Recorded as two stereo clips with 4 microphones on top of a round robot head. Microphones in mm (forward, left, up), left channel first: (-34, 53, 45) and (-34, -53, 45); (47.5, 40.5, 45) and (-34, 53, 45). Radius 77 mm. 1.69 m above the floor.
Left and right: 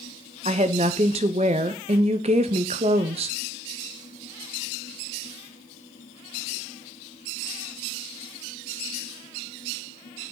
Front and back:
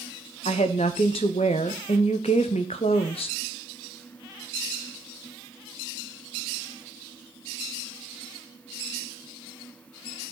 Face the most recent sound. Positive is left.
turn(degrees=-45)